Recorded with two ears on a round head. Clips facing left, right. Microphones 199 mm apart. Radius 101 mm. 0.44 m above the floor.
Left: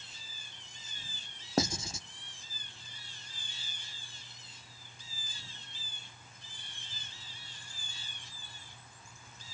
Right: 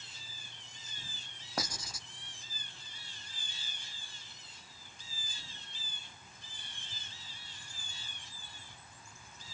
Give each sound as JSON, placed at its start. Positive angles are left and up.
{"t": 1.6, "sound": "writing", "side_deg": 25, "distance_m": 0.5}